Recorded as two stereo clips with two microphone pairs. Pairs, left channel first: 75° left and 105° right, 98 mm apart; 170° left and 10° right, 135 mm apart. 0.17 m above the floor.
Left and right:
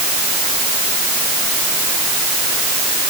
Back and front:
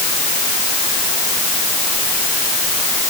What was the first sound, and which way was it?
Only background noise.